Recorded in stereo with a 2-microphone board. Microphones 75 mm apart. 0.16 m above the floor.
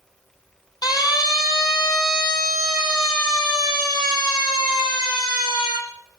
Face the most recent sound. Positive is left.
turn(degrees=80)